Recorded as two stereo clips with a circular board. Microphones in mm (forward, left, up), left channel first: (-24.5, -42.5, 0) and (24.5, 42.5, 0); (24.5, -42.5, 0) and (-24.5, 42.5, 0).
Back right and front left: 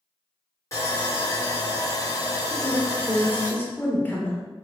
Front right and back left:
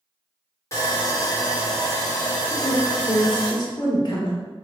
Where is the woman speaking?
60° right, 1.2 m.